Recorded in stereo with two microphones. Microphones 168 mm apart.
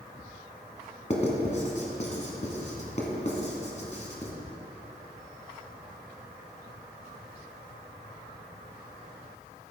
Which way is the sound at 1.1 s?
45° left (ahead or behind).